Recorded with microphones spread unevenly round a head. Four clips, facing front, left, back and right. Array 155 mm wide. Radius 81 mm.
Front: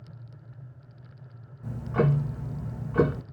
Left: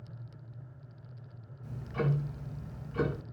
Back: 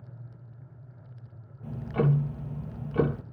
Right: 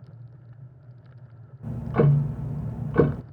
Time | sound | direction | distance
1.6 | ticking | 90° right | 0.6 m